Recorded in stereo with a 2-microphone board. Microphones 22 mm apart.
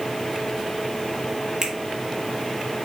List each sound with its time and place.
1.6 s a finger snap: 30° right (ahead or behind), 1.2 m